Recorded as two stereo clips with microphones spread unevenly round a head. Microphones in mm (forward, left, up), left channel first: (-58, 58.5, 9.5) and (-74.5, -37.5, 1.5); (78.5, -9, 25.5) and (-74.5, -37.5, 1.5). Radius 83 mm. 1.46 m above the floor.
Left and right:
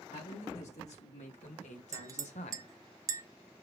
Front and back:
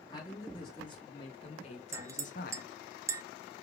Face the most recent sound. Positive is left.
turn(degrees=-100)